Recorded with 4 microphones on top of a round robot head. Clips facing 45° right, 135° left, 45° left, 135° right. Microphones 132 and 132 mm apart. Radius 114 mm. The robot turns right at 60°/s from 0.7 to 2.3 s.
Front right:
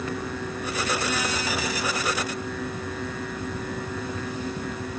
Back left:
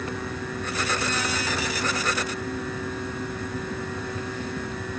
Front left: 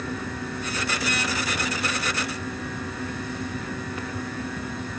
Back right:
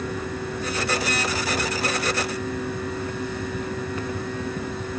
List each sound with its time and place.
Only background noise.